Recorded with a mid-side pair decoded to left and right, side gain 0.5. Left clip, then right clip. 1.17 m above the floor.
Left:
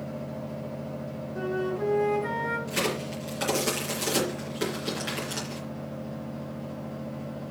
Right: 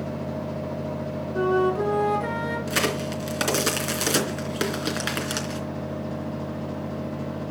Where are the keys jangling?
No keys jangling in this recording.